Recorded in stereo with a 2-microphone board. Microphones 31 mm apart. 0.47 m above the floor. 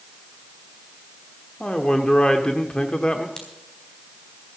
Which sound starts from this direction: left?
A man speaking, at 1.6 s.